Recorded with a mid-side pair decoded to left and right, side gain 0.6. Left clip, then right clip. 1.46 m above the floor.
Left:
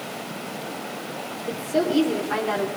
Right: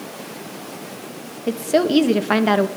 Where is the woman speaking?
65° right, 2 m.